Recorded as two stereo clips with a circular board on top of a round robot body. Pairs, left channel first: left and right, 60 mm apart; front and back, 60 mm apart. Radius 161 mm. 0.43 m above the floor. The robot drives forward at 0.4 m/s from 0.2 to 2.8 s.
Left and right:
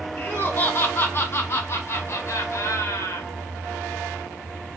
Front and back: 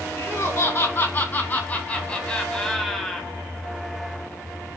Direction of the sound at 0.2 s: 35° left.